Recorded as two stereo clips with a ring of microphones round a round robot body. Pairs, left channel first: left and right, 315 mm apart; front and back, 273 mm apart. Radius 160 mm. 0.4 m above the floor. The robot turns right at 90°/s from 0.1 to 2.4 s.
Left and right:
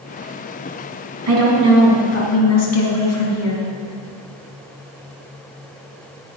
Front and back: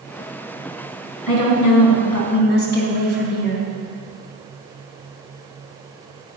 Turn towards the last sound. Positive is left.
turn(degrees=50)